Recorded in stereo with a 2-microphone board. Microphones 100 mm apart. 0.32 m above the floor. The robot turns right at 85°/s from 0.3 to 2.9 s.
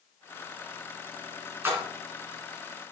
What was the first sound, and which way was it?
A splash, 25° right (ahead or behind).